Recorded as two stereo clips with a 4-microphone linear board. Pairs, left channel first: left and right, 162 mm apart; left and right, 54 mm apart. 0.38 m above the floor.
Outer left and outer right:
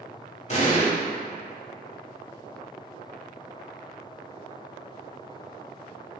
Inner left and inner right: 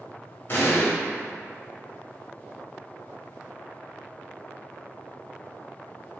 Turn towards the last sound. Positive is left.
turn(degrees=45)  # may be behind; listen again after turning